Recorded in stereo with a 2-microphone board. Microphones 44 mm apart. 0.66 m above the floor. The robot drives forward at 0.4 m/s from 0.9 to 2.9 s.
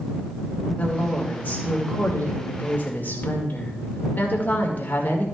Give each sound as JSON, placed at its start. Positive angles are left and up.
{"t": 0.8, "sound": "a woman speaking", "side_deg": 30, "distance_m": 2.5}